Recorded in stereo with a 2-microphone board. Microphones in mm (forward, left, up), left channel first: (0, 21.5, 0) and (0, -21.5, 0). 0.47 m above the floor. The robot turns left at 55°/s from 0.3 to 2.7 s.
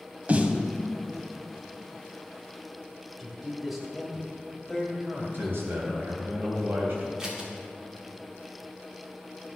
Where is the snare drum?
35° right (ahead or behind), 0.8 m; by 0.6 s 20° right (ahead or behind), 0.8 m.